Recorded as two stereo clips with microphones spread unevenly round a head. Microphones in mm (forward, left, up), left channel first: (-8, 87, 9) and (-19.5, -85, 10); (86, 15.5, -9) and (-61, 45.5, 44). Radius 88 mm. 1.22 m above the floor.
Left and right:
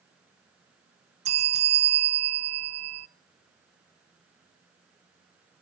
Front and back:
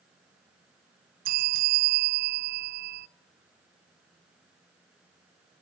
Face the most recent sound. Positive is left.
turn(degrees=-150)